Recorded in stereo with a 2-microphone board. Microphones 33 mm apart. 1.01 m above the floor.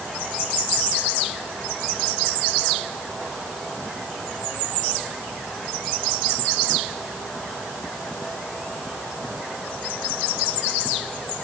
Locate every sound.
Only background noise.